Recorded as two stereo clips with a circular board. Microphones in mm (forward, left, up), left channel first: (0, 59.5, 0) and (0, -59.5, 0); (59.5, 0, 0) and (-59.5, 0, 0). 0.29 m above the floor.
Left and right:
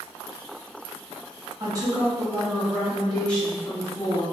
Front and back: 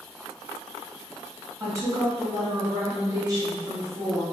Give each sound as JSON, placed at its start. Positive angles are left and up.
{"t": 1.6, "sound": "a woman speaking", "azimuth_deg": -130, "distance_m": 1.3}